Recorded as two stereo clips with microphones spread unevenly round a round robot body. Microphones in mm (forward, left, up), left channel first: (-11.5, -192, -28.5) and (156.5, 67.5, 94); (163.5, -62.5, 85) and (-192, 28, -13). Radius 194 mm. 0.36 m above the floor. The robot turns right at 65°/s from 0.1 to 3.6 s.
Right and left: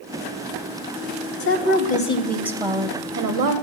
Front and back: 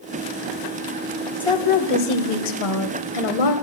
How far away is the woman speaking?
About 2.0 m.